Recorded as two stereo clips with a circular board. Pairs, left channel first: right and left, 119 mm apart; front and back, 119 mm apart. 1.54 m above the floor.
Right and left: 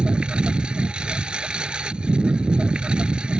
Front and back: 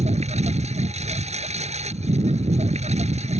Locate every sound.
0.0 s a lawn mower: 170° left